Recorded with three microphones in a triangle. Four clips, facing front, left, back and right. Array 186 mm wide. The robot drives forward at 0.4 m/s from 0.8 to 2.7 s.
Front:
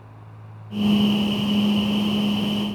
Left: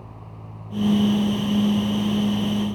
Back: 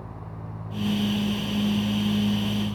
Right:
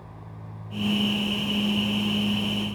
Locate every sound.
Only background noise.